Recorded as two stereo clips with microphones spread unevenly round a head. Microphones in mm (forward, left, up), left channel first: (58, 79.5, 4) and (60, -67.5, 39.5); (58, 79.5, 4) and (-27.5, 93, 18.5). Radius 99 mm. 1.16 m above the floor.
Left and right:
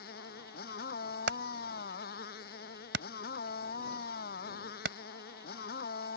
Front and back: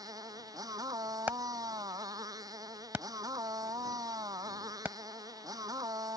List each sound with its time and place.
0.0 s a motorcycle: 125° left
1.3 s hammering: 110° right